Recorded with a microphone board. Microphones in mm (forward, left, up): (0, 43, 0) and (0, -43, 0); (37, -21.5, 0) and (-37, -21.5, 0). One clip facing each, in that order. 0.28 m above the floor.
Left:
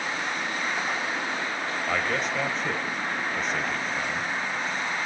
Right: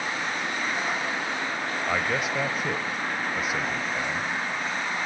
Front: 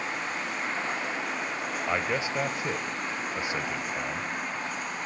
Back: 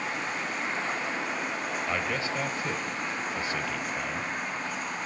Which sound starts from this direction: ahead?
A man speaking, at 1.9 s.